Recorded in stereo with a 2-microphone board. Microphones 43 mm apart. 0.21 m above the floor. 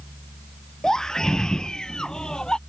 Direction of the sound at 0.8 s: 15° left (ahead or behind).